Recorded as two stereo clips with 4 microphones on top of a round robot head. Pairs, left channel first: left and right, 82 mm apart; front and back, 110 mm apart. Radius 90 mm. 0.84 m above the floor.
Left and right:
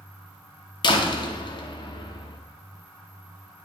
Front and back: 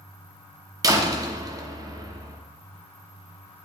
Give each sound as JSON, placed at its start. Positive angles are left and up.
{"t": 0.8, "sound": "a door slam", "azimuth_deg": 120, "distance_m": 0.9}